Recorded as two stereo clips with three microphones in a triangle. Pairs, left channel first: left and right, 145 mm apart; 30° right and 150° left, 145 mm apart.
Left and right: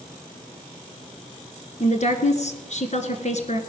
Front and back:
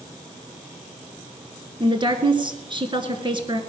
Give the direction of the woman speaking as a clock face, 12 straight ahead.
9 o'clock.